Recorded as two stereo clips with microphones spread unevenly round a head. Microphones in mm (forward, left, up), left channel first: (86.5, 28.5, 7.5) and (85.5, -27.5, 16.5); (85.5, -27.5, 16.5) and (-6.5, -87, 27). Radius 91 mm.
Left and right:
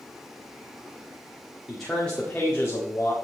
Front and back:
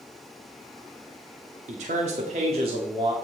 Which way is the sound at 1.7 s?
Straight behind.